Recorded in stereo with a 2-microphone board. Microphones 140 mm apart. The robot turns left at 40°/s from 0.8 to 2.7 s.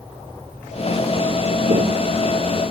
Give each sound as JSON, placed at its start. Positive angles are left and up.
{"t": 1.7, "sound": "footsteps", "side_deg": -70}